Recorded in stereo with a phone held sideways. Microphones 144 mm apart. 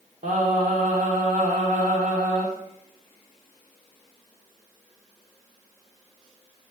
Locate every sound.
0.2 s singing: 65° right (ahead or behind), 2 m